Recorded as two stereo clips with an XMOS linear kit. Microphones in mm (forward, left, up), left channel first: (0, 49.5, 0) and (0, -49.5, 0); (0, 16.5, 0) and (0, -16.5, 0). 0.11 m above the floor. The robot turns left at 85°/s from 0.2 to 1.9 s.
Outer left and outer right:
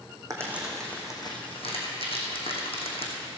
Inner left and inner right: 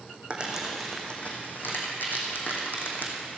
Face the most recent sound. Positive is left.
turn(degrees=75)  # may be behind; listen again after turning